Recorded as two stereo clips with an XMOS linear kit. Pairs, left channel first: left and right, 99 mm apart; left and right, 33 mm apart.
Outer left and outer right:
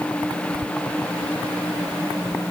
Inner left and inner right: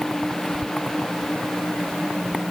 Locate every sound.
Only background noise.